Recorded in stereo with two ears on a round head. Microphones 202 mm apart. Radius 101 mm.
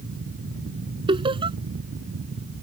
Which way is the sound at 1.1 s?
25° right (ahead or behind).